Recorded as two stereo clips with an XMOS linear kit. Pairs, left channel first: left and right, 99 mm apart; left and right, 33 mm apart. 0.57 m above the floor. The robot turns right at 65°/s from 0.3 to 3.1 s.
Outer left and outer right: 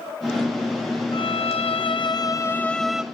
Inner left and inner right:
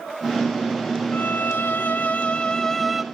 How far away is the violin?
About 0.5 m.